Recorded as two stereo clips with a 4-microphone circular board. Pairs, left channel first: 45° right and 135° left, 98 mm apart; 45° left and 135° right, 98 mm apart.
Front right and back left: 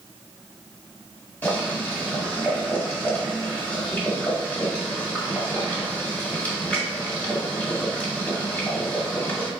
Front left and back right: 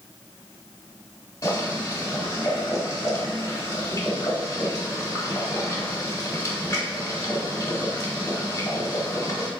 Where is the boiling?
20° left, 1.5 m.